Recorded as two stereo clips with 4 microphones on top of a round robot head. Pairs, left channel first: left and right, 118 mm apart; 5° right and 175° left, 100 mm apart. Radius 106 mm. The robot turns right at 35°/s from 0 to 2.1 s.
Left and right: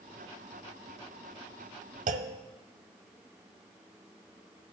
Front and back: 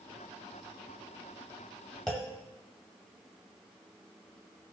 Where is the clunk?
90° right, 0.6 m.